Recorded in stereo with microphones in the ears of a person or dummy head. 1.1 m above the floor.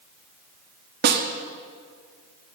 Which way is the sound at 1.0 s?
55° right (ahead or behind).